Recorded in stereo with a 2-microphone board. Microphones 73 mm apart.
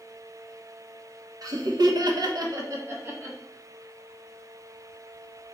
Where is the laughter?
55° right (ahead or behind), 0.7 m; by 3.4 s 30° right (ahead or behind), 0.9 m.